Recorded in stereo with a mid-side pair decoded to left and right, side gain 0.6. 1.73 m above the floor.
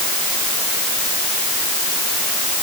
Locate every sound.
Only background noise.